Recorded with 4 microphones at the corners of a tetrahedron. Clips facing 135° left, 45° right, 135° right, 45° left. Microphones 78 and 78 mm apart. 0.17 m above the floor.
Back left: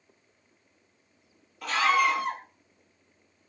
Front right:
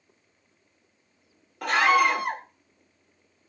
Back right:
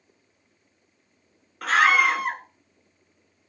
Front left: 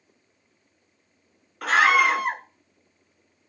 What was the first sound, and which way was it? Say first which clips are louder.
A scream: front right 3 dB, front left 1 dB; 45° right.